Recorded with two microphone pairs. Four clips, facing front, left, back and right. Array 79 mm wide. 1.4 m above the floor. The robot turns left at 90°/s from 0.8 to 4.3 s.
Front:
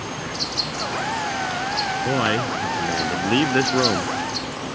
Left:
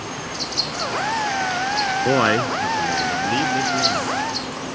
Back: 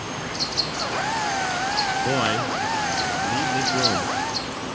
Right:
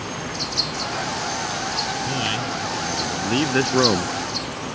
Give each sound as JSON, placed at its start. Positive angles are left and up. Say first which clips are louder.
{"t": 2.0, "sound": "a man speaking", "louder": "left 8 dB, front 1 dB", "azimuth_deg": 100}